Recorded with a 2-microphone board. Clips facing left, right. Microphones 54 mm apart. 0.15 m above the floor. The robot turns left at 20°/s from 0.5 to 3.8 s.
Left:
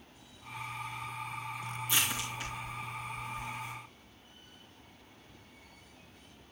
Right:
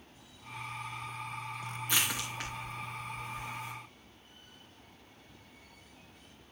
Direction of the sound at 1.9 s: 50° right (ahead or behind).